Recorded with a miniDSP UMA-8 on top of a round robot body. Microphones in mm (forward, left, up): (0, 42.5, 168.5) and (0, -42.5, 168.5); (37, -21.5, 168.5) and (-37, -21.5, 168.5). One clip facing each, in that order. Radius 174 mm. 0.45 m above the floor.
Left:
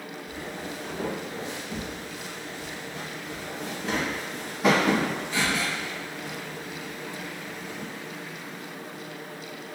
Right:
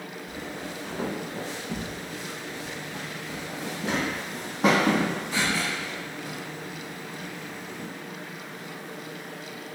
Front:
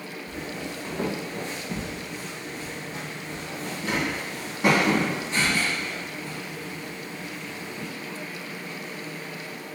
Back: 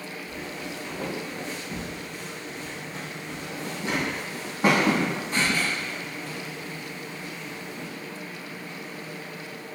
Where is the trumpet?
I don't hear a trumpet.